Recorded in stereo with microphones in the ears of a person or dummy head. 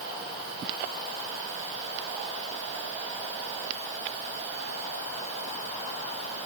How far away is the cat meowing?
I don't hear a cat meowing.